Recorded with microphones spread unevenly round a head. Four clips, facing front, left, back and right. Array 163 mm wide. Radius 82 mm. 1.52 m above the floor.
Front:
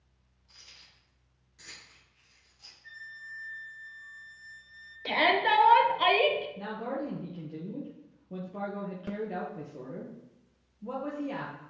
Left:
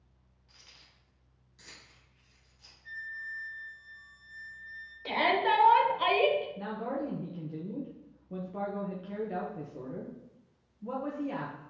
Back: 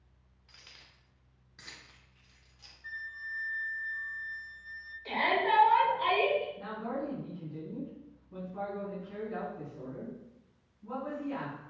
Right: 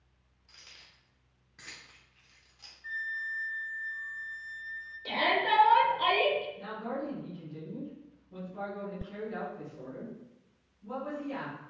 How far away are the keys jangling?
About 3 m.